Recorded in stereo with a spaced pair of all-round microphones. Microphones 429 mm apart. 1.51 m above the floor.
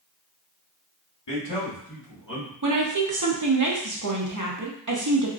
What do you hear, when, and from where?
1.3 s a man speaking: 75° left (ahead or behind), 1.7 m; by 2.5 s 40° left (ahead or behind), 1.7 m
2.6 s a woman speaking: 45° right (ahead or behind), 0.7 m